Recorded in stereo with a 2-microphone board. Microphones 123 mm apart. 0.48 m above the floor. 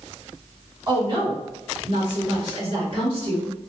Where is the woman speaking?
45° right (ahead or behind), 2.0 m; by 3.5 s 50° right (ahead or behind), 2 m.